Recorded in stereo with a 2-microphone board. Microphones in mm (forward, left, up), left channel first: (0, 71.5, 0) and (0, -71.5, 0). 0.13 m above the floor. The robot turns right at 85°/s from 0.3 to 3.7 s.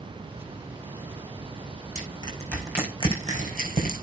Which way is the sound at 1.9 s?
55° left (ahead or behind).